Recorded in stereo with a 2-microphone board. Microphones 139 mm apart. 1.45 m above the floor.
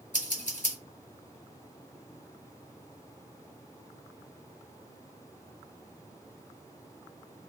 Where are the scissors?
65° left (ahead or behind), 1.5 m.